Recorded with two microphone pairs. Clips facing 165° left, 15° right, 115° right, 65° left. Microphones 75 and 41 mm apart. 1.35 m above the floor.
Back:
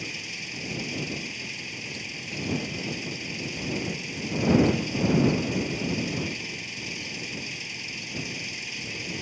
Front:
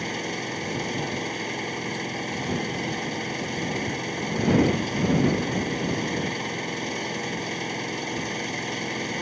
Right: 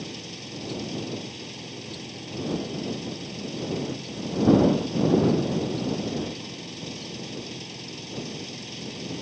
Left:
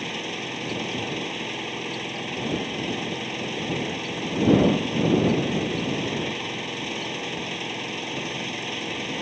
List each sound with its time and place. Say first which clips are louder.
0.0 s an engine running: front 9 dB, left 8 dB; 20° left